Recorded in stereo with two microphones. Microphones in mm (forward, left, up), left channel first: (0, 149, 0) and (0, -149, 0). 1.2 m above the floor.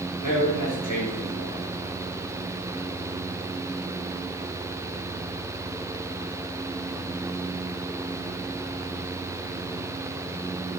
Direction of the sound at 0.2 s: 85° left.